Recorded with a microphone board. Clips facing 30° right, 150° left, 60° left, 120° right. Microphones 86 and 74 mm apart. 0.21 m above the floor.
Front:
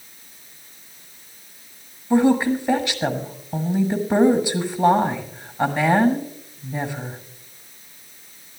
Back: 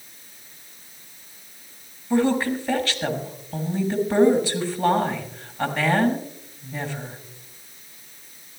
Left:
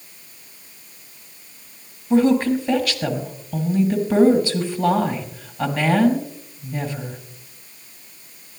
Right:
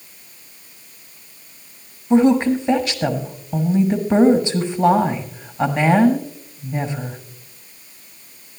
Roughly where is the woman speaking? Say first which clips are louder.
Front 4 dB, right 2 dB; right.